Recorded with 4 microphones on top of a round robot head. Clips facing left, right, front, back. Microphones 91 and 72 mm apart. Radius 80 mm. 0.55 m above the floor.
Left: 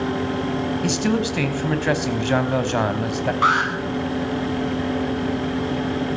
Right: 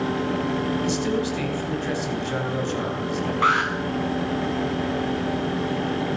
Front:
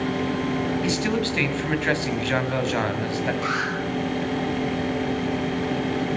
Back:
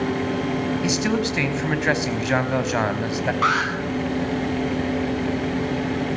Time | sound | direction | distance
0.8 | a man speaking | 110° left | 3.5 m
3.4 | an alarm | 160° left | 9 m